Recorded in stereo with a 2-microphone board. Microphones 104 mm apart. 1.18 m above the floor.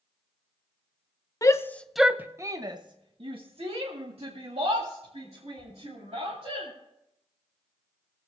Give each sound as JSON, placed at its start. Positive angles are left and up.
{"t": 1.4, "sound": "a shout", "side_deg": 35, "distance_m": 0.7}